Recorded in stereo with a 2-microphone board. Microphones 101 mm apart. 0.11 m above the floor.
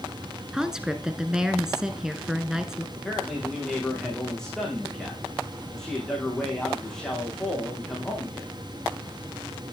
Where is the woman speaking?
5° right (ahead or behind), 1.1 m.